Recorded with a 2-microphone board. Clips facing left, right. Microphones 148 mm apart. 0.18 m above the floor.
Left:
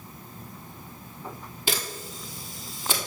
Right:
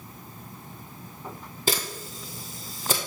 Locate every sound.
1.7 s a camera shutter: 40° right (ahead or behind), 1.2 m